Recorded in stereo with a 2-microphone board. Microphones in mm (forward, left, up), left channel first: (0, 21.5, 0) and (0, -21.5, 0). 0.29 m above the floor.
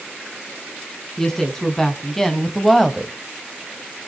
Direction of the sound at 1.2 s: 10° left (ahead or behind).